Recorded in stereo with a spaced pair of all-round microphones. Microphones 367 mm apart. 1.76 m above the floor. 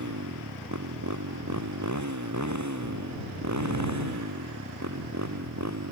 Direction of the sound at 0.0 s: 55° right (ahead or behind).